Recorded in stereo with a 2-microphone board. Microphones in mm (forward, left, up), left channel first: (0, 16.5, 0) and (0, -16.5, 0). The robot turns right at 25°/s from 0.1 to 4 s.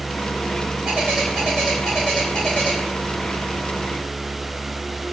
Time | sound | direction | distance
0.8 | a bird | 15° right | 3 m